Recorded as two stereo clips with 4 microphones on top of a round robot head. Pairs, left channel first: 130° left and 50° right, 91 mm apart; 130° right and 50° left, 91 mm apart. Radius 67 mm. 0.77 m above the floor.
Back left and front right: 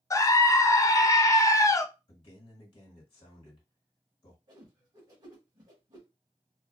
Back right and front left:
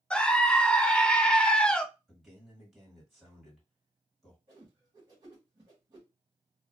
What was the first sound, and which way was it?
A scream, 155° left.